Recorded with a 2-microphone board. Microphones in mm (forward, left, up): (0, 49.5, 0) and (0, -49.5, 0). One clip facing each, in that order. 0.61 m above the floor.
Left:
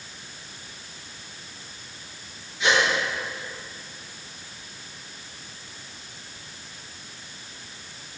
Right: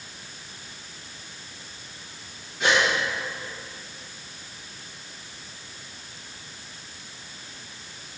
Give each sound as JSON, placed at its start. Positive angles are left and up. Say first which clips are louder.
{"t": 2.6, "sound": "a gasp", "louder": "even", "side_deg": -55, "distance_m": 5.5}